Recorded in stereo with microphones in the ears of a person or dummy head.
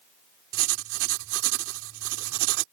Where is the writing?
75° right (ahead or behind).